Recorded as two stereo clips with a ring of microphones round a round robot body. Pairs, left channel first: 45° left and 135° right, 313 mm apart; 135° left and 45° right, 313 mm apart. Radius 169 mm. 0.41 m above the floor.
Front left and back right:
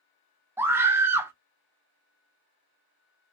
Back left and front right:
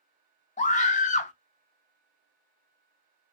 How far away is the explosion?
I don't hear an explosion.